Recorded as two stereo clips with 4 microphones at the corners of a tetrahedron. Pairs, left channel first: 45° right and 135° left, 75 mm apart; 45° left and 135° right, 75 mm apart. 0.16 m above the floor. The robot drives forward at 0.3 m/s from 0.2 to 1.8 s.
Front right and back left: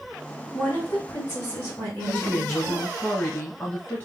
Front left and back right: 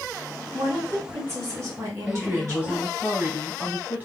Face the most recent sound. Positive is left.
turn(degrees=-90)